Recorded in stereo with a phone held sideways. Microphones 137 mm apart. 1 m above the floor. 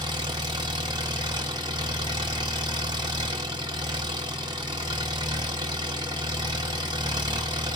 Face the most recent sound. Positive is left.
turn(degrees=-30)  # may be behind; listen again after turning